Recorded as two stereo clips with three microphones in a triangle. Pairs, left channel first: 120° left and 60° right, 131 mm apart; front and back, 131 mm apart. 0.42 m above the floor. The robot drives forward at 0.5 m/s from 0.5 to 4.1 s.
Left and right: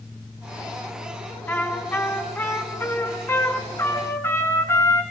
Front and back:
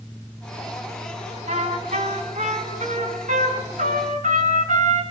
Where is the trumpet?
165° right, 3 m; by 5.0 s 170° right, 4.5 m.